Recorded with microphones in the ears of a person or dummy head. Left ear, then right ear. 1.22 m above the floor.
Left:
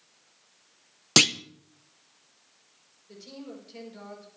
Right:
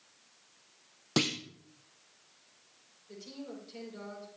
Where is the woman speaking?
5° left (ahead or behind), 5 m.